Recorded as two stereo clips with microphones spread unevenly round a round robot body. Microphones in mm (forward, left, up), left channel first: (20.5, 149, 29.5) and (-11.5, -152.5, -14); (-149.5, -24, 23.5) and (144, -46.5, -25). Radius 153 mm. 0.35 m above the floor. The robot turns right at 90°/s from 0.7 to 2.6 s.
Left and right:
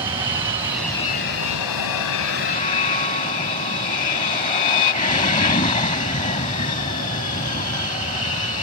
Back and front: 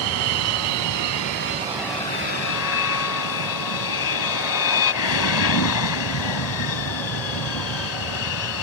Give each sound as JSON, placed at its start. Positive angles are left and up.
{"t": 0.0, "sound": "an aircraft", "azimuth_deg": -20}